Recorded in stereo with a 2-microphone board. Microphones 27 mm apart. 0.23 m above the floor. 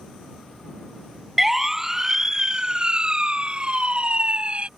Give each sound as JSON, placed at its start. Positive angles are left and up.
{"t": 1.4, "sound": "a siren", "side_deg": -10}